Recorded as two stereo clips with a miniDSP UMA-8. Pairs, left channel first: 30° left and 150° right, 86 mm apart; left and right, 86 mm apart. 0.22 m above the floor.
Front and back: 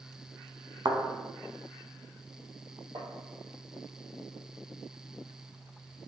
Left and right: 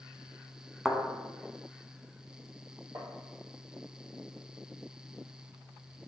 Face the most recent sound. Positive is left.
turn(degrees=-135)